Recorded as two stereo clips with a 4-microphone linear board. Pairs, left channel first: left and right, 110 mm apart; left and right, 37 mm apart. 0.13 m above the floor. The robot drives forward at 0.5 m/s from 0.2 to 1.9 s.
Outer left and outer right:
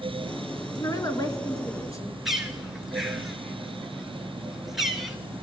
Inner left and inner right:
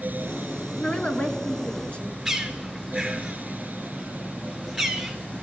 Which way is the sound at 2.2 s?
5° right (ahead or behind).